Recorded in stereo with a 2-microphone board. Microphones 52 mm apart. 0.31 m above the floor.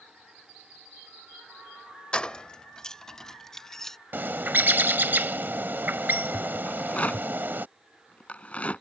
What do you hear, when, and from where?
2.1 s keys jangling: 20° left (ahead or behind); by 4.0 s 5° left (ahead or behind)
4.1 s a bird: 40° right (ahead or behind)
6.7 s a rattle: 25° left (ahead or behind)